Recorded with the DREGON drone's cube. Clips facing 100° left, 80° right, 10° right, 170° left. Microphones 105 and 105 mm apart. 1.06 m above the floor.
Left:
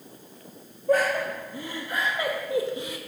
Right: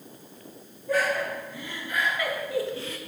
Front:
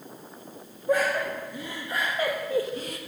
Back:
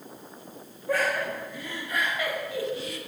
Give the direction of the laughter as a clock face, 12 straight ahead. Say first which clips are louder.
Left 3 dB, front 2 dB; 10 o'clock.